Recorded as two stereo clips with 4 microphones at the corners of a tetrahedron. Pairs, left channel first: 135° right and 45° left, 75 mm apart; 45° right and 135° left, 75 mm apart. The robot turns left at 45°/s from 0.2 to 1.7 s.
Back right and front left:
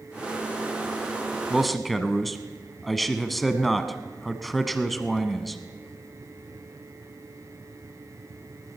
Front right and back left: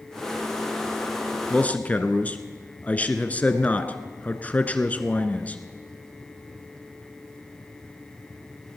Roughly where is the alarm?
I don't hear an alarm.